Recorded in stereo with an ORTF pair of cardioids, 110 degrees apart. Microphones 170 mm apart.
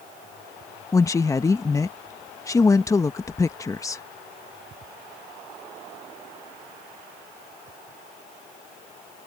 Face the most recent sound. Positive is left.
turn(degrees=20)